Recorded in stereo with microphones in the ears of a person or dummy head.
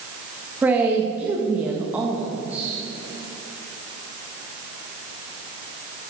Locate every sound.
0.6 s a man speaking: 10° right (ahead or behind), 1.7 m